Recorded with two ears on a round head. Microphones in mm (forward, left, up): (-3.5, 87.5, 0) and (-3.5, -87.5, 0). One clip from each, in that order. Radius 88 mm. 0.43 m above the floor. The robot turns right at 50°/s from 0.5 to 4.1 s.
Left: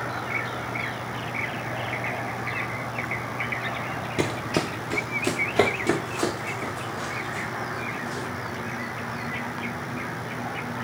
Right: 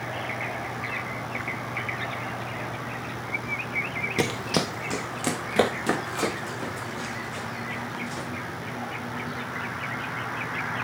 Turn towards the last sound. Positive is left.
turn(degrees=-50)  # may be behind; listen again after turning